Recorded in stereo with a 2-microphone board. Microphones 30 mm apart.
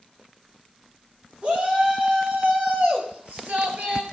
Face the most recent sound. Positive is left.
turn(degrees=-60)  # may be behind; listen again after turning